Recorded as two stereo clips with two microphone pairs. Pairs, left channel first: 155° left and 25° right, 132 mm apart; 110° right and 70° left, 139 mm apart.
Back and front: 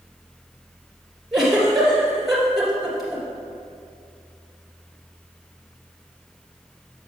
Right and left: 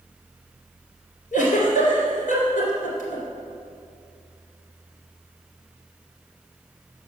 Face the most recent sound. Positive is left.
turn(degrees=-115)